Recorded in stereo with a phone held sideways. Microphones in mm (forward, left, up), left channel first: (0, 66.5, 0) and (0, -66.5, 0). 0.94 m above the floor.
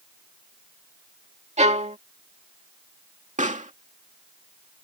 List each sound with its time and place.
1.6 s a violin: 55° right (ahead or behind)
3.4 s a pop: 65° right (ahead or behind)